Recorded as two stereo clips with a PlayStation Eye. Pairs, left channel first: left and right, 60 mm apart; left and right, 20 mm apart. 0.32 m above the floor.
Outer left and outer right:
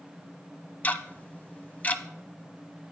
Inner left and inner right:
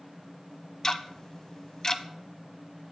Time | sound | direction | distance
0.8 | ticking | 30° left (ahead or behind) | 0.6 m